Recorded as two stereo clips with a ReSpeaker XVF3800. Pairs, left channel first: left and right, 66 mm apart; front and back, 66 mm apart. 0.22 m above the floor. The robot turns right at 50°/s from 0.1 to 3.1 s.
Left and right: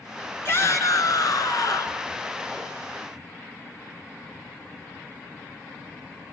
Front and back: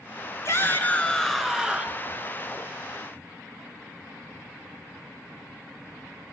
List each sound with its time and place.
0.5 s a shout: 45° left, 2.5 m; by 2.0 s 120° left, 2.5 m